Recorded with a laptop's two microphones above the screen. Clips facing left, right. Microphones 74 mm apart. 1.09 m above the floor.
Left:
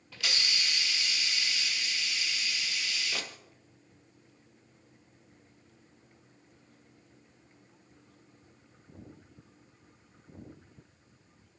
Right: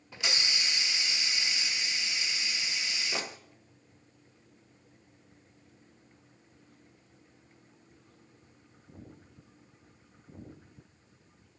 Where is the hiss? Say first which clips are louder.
Right 1 dB; 20° right (ahead or behind), 0.8 m.